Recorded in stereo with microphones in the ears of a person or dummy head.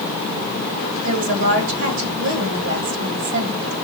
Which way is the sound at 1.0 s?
70° right (ahead or behind).